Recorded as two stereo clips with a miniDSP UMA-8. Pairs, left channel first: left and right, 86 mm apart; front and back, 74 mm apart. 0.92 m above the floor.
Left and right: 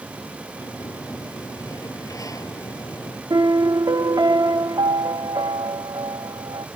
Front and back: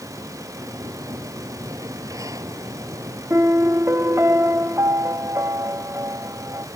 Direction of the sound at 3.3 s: 125° right.